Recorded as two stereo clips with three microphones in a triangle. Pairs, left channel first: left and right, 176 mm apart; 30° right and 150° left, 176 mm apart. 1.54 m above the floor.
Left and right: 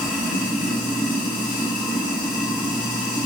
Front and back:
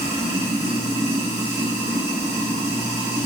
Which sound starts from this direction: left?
Running water, at 0.0 s.